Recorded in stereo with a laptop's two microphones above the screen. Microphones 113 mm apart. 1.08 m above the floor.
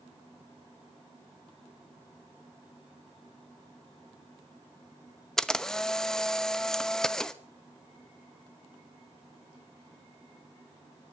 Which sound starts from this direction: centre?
A camera shutter, at 5.4 s.